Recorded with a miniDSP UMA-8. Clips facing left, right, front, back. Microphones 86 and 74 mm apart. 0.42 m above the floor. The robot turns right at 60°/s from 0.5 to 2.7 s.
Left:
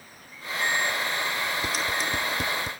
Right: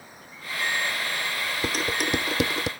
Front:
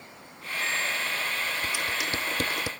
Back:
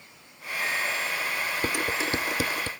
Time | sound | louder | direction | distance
1.6 | dishes clattering | right 1 dB, back 3 dB | 145° right | ?